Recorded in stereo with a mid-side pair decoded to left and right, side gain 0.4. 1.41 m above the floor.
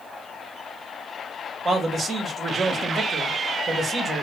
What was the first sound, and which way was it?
A man speaking, 45° right.